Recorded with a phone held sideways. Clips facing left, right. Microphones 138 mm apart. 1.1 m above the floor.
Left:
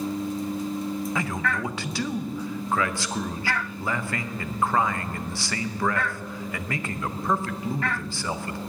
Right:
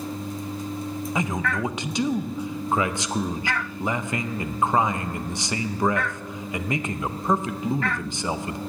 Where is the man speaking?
20° right (ahead or behind), 0.6 m.